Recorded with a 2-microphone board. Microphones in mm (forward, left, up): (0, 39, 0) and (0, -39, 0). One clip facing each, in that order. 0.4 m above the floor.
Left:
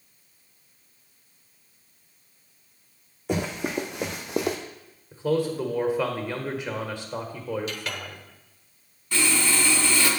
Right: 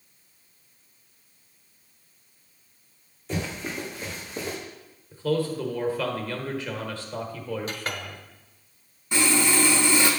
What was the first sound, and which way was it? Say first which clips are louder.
Running footsteps: left 4 dB; 65° left (ahead or behind).